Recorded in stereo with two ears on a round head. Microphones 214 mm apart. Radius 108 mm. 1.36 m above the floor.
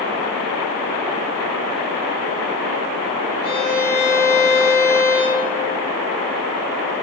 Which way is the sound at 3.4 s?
40° left (ahead or behind).